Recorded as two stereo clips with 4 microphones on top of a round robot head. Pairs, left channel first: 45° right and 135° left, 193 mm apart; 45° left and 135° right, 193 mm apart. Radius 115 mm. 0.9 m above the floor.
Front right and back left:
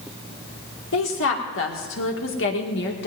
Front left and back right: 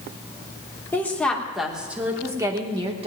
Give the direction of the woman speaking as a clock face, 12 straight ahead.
1 o'clock.